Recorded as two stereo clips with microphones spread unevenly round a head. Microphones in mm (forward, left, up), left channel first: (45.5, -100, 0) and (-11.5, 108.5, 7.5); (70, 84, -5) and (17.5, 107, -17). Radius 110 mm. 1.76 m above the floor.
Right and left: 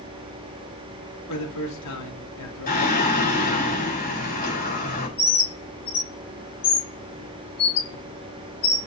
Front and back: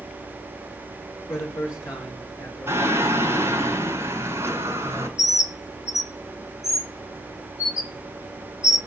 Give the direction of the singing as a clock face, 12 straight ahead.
4 o'clock.